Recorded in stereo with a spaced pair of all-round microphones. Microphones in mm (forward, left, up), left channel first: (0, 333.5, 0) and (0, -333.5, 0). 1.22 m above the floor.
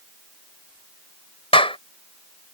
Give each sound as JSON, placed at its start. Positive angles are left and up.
{"t": 1.5, "sound": "a clap", "side_deg": 10}